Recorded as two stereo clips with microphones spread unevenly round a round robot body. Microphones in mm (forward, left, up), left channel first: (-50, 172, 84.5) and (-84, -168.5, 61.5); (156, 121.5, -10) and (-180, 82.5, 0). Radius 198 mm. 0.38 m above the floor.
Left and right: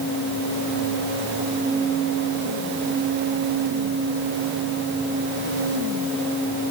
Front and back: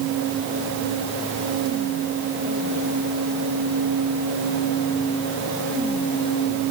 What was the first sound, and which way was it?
Only background noise.